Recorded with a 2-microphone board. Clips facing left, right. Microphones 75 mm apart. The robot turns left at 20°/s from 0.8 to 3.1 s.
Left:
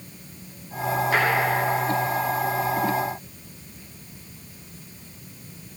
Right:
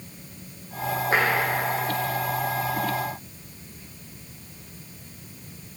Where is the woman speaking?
I don't hear a woman speaking.